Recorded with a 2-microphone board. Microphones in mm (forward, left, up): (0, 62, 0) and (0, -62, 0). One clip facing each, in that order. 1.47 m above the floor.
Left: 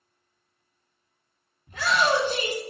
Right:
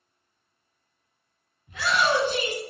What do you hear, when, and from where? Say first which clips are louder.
1.7 s a shout: left 1 dB; 45° left (ahead or behind), 1.3 m